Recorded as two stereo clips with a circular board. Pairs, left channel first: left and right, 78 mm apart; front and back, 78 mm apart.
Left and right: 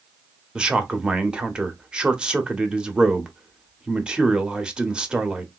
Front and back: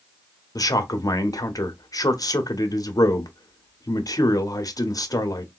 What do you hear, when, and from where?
0.6 s a man speaking: 15° right, 0.8 m